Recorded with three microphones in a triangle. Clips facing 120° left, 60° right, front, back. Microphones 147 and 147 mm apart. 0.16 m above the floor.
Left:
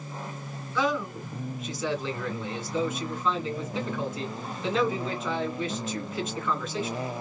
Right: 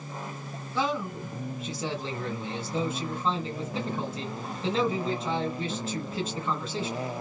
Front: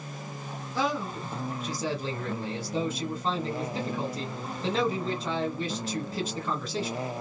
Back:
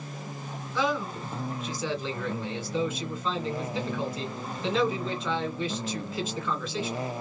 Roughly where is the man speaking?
Ahead right.